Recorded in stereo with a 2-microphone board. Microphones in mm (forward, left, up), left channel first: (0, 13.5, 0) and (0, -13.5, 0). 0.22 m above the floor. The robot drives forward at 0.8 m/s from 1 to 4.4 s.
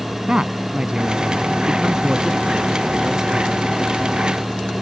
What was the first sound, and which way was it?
A man speaking, 35° right (ahead or behind).